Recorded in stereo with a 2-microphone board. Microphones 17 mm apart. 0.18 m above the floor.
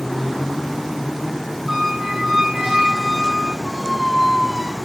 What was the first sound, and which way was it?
A squeak, 20° right (ahead or behind).